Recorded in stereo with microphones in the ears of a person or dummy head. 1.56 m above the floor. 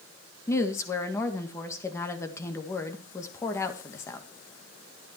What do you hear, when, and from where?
0.5 s a woman speaking: 20° left (ahead or behind), 1.9 m